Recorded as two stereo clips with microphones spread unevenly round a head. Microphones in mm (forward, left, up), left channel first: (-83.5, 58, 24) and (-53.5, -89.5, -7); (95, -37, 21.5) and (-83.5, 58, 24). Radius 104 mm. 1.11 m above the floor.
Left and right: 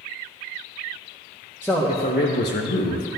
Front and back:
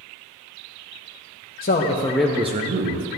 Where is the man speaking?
15° left, 0.8 m; by 3.1 s 125° left, 0.9 m.